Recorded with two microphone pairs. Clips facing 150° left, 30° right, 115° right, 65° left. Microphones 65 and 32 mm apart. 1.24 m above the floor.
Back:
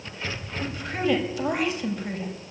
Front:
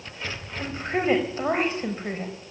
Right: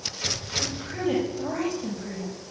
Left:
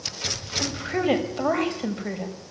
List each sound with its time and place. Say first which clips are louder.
0.6 s a woman speaking: front 2 dB, left 5 dB; 25° left, 7 m